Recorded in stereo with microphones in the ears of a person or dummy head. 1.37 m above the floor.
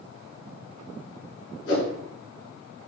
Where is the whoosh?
75° left (ahead or behind), 4.5 m.